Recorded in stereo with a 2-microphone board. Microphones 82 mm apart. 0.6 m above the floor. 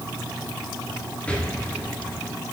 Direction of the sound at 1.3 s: 15° left (ahead or behind).